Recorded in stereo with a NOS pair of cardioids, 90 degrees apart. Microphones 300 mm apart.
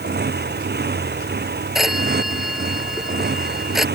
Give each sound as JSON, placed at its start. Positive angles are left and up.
{"t": 0.0, "sound": "a motorcycle", "azimuth_deg": -35}
{"t": 1.8, "sound": "a phone ringing", "azimuth_deg": 0}